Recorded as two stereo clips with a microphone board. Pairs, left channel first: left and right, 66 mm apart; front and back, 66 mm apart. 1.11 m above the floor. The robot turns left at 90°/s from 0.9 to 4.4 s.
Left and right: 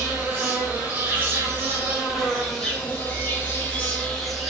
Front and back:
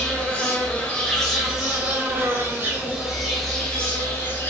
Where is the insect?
50° right, 0.9 m; by 4.5 s 5° right, 0.9 m.